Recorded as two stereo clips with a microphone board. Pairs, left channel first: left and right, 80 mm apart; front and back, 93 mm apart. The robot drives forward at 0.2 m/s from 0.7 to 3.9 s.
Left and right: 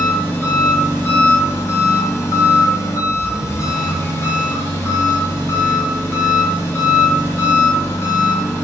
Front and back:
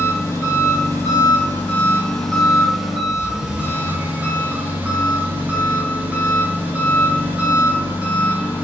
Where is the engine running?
45° left, 0.9 m; by 8.6 s 120° left, 0.8 m.